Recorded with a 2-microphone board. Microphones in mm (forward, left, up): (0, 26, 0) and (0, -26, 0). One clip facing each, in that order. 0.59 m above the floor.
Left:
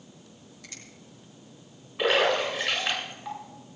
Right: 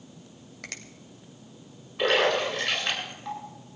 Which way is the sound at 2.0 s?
5° left (ahead or behind).